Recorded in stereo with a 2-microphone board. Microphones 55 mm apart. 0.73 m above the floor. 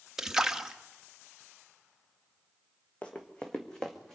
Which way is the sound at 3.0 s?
25° left (ahead or behind).